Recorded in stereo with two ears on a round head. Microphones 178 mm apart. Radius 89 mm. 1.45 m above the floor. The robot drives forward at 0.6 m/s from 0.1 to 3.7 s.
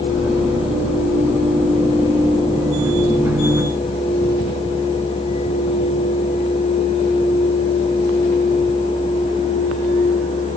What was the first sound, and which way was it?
Only background noise.